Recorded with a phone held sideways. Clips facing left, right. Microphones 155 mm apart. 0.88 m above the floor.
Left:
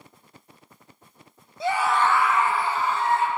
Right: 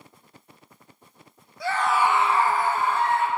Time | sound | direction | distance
1.6 | a scream | 25° left (ahead or behind) | 0.6 m